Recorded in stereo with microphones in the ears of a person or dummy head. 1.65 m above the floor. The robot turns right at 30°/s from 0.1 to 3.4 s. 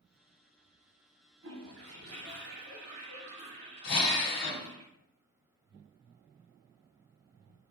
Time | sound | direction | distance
1.4 | a toilet flushing | 95° right | 1.4 m
3.8 | a drill | 60° left (ahead or behind) | 1.6 m